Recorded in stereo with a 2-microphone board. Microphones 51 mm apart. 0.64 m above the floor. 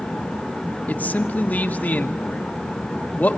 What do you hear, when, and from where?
0.9 s a man speaking: 30° left (ahead or behind), 1.4 m